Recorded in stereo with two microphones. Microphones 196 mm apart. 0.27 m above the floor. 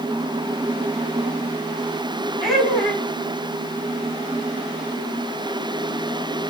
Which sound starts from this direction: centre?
Laughter, at 2.4 s.